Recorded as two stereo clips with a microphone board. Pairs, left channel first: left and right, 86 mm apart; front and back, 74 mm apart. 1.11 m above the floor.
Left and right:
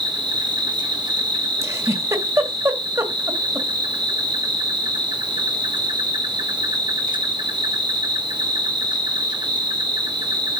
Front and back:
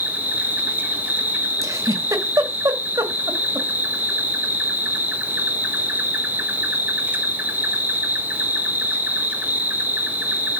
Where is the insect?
115° right, 1.5 m.